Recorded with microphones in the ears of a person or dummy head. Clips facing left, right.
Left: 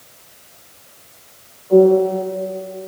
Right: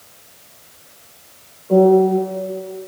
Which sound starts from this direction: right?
A piano, at 1.7 s.